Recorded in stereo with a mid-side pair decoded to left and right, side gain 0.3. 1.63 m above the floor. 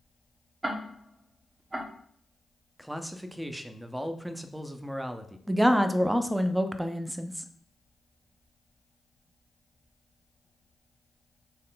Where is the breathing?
I don't hear breathing.